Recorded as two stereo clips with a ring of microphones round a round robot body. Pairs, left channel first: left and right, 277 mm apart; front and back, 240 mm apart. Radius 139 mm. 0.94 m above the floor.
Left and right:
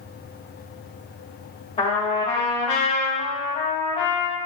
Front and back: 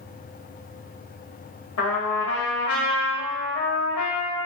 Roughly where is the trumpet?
Ahead left.